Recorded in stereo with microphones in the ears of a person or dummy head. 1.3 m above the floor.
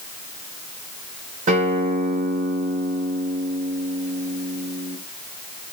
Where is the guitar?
45° right (ahead or behind), 1.1 m.